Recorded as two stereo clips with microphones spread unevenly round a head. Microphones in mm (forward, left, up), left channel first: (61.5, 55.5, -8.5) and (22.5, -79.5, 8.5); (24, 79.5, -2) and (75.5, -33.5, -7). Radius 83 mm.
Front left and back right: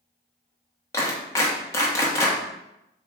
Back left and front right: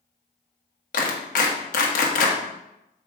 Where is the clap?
145° left, 1.2 m.